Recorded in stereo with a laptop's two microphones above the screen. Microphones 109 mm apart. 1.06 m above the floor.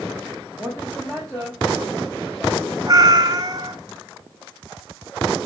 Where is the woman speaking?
5° right (ahead or behind), 2.5 m; by 2.8 s 20° left (ahead or behind), 4 m.